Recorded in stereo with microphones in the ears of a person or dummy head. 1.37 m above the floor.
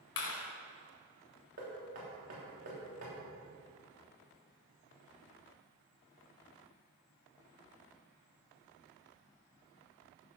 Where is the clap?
85° left, 3 m.